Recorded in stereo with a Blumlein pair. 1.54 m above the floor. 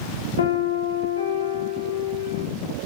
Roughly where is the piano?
Ahead left.